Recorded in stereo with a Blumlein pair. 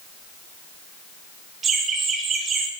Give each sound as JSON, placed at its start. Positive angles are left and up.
{"t": 1.6, "sound": "laughter", "azimuth_deg": -20, "distance_m": 3.0}